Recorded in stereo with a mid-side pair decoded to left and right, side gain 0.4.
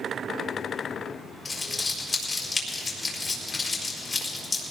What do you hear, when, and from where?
1.4 s crumpling: 35° left, 4.5 m